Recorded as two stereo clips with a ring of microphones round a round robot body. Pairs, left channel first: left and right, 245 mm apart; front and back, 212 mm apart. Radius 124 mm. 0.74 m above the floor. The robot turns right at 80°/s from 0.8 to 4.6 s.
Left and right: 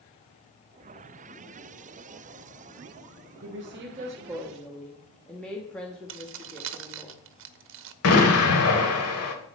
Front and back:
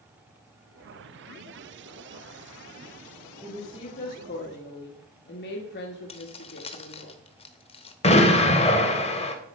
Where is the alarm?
No alarm in this recording.